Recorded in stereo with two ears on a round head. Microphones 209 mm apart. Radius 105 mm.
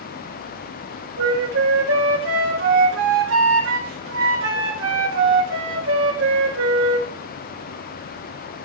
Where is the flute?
60° right (ahead or behind), 4 m.